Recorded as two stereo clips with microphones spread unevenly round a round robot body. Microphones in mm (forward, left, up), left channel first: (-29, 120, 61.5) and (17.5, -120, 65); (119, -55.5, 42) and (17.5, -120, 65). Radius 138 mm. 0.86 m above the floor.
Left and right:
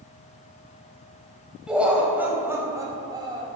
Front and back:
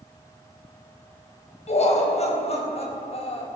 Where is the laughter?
10° left, 4 m; by 3.5 s 5° right, 4 m.